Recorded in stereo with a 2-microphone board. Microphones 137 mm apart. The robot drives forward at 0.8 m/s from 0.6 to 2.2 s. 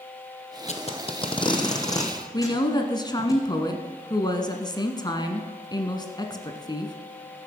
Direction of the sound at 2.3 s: 30° left (ahead or behind).